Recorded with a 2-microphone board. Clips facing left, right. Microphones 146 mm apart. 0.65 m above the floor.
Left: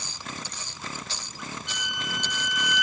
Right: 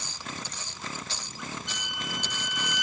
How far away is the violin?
About 1.5 m.